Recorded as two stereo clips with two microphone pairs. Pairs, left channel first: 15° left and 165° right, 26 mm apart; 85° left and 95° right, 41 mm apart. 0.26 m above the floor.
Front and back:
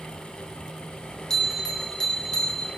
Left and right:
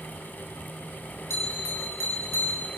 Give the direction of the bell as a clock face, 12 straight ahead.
9 o'clock.